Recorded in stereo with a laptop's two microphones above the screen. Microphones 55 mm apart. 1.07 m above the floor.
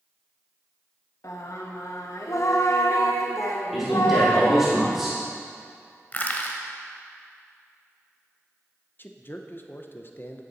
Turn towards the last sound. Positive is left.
turn(degrees=40)  # may be behind; listen again after turning